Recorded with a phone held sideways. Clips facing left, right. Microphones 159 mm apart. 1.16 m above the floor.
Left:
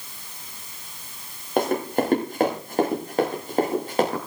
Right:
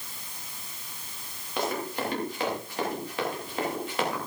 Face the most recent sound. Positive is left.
turn(degrees=40)  # may be behind; listen again after turning